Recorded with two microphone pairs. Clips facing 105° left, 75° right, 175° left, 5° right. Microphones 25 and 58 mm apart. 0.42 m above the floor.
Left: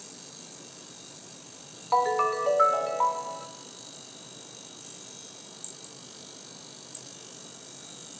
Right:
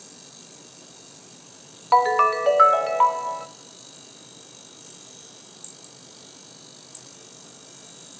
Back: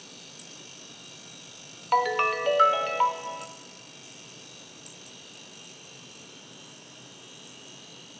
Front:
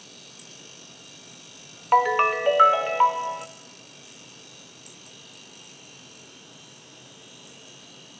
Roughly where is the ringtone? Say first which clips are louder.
Right 7 dB, front 4 dB; ahead right.